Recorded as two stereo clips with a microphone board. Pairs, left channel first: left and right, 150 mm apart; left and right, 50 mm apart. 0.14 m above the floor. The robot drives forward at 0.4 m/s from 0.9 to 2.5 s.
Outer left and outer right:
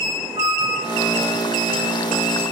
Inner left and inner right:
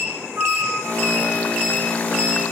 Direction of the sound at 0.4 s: 35° right (ahead or behind).